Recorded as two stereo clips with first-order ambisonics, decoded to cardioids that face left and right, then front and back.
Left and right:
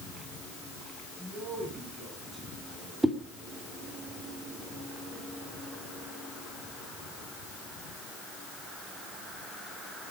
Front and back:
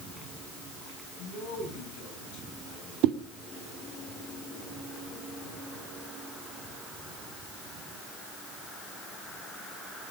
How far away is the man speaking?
About 6 m.